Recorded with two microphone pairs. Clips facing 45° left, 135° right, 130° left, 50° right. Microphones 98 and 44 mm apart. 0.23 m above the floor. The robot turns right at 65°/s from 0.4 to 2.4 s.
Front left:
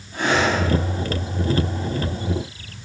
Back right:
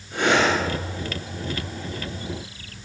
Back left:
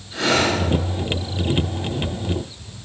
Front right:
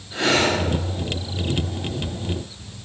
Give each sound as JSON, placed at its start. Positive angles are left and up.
{"t": 0.1, "sound": "breathing", "azimuth_deg": -135, "distance_m": 4.0}